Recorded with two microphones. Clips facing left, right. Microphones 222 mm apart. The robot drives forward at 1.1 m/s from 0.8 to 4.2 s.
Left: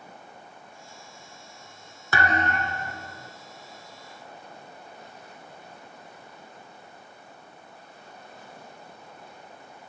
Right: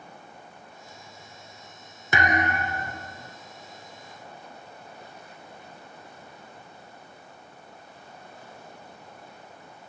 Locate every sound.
2.1 s a thud: 20° right (ahead or behind), 0.8 m; by 3.3 s 10° right (ahead or behind), 2 m